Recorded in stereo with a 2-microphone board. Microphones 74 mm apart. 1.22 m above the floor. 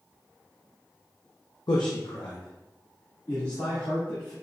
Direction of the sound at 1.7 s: 70° left (ahead or behind).